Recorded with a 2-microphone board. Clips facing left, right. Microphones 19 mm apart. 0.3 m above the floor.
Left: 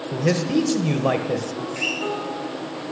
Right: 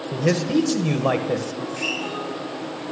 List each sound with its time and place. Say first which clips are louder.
0.1 s a man speaking: right 1 dB; 5° right (ahead or behind), 1.0 m
1.6 s a guitar: left 1 dB; 60° left (ahead or behind), 5 m